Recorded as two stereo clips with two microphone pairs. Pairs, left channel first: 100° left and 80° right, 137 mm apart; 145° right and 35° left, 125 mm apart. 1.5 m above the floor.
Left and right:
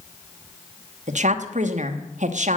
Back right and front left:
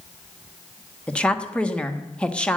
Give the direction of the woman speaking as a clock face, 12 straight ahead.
2 o'clock.